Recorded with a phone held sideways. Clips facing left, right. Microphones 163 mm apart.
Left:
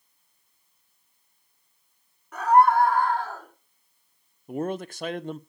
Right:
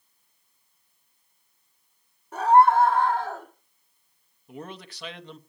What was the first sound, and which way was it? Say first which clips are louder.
A scream: right 1 dB; 30° right (ahead or behind).